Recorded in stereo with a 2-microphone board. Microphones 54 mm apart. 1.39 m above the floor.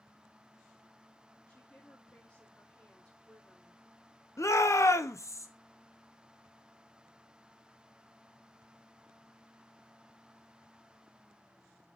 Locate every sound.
1.5 s a woman speaking: 20° left (ahead or behind), 3 m
4.4 s a shout: 65° left (ahead or behind), 1.0 m